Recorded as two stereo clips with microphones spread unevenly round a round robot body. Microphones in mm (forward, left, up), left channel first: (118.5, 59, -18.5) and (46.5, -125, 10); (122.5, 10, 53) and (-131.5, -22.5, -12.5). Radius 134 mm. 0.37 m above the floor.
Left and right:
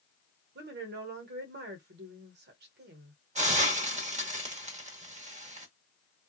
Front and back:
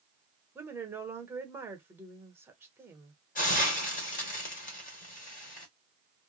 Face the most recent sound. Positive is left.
turn(degrees=-60)